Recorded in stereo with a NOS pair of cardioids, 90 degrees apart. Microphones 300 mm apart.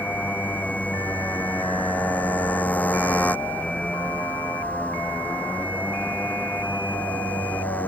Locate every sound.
0.0 s a motorcycle: 5° left